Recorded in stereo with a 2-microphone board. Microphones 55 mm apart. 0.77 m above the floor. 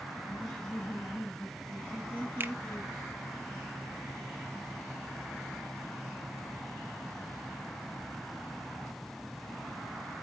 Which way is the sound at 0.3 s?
10° left (ahead or behind).